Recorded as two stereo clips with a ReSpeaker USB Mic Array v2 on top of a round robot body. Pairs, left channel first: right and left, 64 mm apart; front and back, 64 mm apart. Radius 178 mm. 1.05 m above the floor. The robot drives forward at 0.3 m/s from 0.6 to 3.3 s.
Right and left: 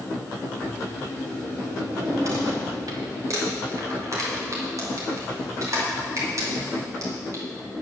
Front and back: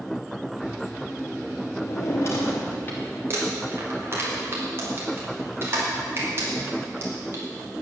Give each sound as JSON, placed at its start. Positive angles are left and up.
{"t": 1.8, "sound": "a drawer", "azimuth_deg": 45, "distance_m": 1.0}
{"t": 3.3, "sound": "crumpling", "azimuth_deg": 125, "distance_m": 2.5}